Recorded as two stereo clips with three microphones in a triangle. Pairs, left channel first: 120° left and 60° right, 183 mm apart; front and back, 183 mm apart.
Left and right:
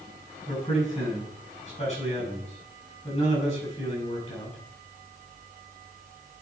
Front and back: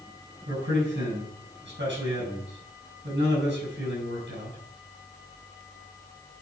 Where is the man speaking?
170° left, 7 m.